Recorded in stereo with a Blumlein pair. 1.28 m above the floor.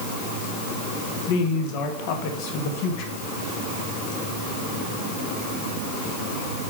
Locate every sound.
1.3 s a woman speaking: 45° left, 1.8 m